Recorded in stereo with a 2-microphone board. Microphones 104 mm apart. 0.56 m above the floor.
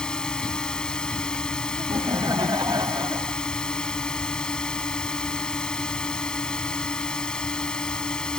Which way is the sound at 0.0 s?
5° left (ahead or behind).